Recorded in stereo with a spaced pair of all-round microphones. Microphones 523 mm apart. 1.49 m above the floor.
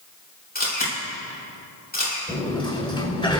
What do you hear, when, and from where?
0.6 s a camera shutter: 15° left (ahead or behind), 6.5 m
2.3 s a sliding door: 10° left (ahead or behind), 4 m